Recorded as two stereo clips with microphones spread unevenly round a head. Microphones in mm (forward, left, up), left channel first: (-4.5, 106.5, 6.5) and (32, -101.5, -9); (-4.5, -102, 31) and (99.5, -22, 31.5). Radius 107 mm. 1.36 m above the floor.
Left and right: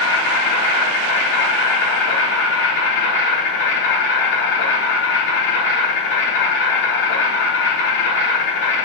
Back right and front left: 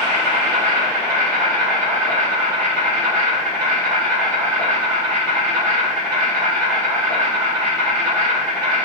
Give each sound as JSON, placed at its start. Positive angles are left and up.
{"t": 0.0, "sound": "an insect", "azimuth_deg": 140, "distance_m": 3.5}